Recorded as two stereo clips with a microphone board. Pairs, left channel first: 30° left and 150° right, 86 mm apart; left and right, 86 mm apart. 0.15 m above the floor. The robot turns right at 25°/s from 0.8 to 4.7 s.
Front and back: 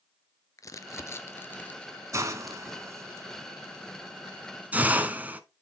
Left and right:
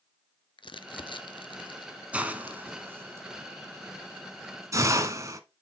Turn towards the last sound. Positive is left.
turn(degrees=-90)